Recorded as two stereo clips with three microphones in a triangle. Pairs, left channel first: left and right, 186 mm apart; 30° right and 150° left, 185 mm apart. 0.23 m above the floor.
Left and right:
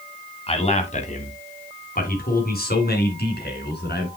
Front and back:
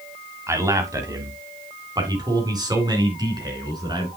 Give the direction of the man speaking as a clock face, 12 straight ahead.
9 o'clock.